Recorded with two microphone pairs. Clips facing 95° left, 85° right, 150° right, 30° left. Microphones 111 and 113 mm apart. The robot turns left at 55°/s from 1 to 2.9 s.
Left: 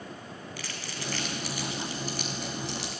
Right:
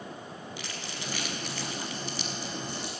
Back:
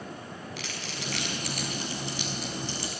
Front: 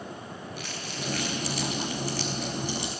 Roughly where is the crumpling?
Behind right.